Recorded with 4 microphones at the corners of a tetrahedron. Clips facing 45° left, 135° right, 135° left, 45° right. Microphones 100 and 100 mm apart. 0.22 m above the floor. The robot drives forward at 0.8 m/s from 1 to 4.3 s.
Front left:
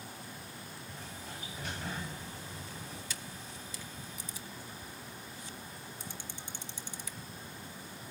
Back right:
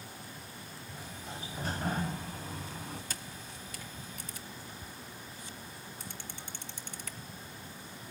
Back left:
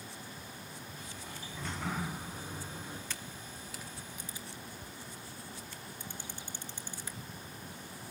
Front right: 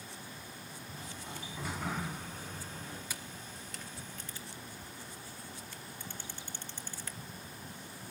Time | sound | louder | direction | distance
0.9 | a sliding door | back right 4 dB, front right 1 dB | 60° right | 0.9 m
3.1 | a camera shutter | even, even | 120° right | 1.1 m